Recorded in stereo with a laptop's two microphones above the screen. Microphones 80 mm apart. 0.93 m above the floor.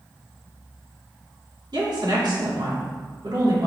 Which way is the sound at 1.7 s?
65° right (ahead or behind).